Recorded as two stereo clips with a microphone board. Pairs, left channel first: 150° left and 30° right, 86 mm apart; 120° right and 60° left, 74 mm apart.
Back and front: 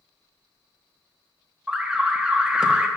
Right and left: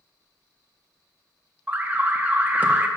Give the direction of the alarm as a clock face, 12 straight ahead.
11 o'clock.